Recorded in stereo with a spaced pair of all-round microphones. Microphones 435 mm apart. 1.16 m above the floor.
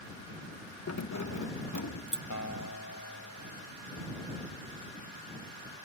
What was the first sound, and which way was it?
Keys jangling, 40° left (ahead or behind).